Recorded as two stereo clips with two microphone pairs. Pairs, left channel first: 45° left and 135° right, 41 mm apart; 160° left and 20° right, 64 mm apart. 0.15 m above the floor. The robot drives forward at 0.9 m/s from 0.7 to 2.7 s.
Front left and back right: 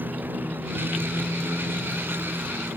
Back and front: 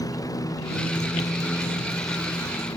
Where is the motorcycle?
Straight behind; by 2.8 s 175° right.